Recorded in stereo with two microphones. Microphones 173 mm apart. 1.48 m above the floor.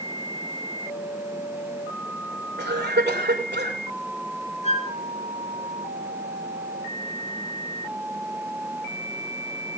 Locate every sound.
2.6 s a cough: 90° right, 6.5 m
4.6 s a flute: 40° left (ahead or behind), 2.5 m